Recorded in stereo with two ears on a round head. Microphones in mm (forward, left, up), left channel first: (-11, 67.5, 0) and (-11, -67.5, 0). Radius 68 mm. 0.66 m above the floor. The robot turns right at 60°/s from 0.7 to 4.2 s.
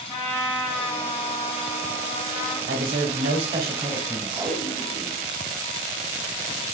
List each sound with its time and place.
0.1 s a trumpet: 15° left, 0.8 m; by 2.6 s 130° left, 0.8 m
2.7 s a man speaking: 80° right, 1.8 m; by 4.5 s 15° left, 1.8 m
4.3 s tape being pulled: 10° left (ahead or behind), 1.5 m